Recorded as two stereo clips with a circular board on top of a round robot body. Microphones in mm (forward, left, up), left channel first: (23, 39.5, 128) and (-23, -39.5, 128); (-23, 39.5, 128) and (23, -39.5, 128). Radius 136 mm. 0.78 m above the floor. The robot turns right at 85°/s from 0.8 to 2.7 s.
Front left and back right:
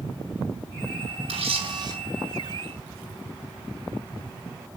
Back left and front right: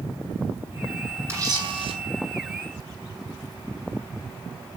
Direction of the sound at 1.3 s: 125° right.